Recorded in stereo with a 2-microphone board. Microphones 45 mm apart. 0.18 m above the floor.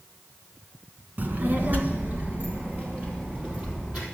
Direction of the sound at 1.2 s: 45° right (ahead or behind).